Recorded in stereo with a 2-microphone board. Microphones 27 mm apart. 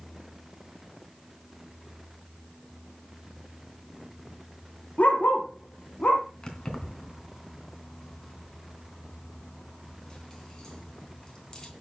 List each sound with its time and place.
5.0 s a dog barking: 60° left (ahead or behind), 3 m
6.4 s keys jangling: 25° left (ahead or behind), 3 m